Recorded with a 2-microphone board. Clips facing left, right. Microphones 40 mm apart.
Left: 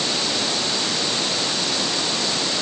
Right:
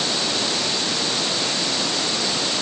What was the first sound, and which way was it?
Only background noise.